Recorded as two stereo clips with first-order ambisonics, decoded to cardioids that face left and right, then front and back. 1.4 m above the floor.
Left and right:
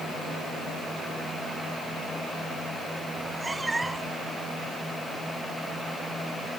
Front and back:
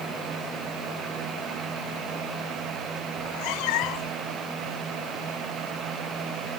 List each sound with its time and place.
3.2 s a cat meowing: 5° right